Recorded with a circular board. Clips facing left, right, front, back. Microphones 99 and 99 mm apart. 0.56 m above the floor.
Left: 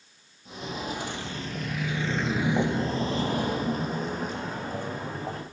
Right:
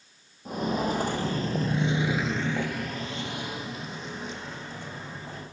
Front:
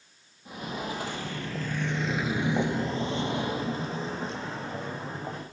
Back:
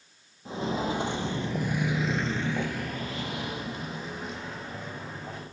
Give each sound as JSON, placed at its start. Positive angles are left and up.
{"t": 0.5, "sound": "footsteps", "azimuth_deg": -120, "distance_m": 1.5}